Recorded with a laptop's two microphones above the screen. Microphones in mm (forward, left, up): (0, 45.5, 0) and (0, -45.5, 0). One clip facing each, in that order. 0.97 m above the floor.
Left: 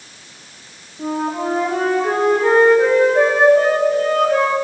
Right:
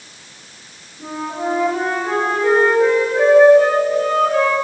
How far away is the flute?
About 5 m.